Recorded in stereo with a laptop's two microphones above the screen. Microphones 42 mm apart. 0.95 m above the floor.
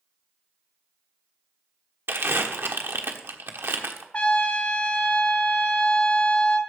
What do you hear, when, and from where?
2.1 s crumpling: 65° right (ahead or behind), 1.2 m
4.1 s a trumpet: 35° left (ahead or behind), 1.4 m